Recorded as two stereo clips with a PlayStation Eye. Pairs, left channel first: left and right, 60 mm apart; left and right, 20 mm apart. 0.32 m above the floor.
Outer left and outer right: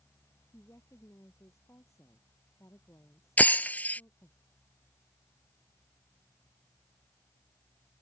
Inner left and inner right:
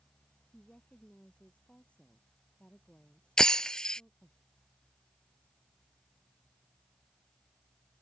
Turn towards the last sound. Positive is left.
turn(degrees=30)  # may be behind; listen again after turning